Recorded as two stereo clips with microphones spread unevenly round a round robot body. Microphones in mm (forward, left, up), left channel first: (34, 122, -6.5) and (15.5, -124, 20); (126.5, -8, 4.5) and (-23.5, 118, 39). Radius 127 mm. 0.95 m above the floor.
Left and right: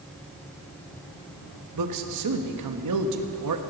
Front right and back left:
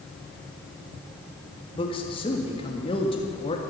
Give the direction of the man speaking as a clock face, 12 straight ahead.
3 o'clock.